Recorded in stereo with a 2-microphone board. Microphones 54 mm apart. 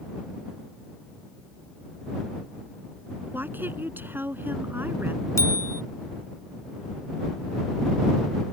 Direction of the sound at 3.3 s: 45° right (ahead or behind).